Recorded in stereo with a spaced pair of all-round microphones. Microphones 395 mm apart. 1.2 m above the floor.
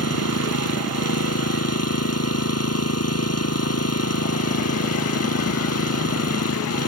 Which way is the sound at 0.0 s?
35° left (ahead or behind).